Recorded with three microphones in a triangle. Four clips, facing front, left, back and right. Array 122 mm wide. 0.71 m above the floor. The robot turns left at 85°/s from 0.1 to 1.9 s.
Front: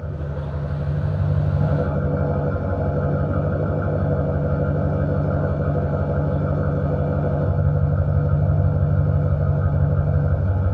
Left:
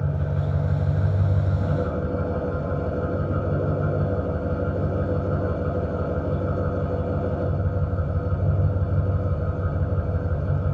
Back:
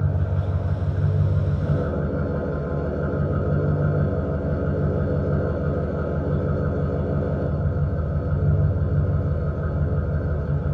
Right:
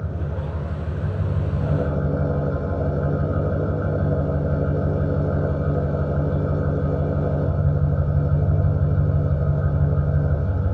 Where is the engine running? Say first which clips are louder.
Left 2 dB, back 2 dB; 140° left, 4.5 m; by 10.7 s 15° right, 4.5 m.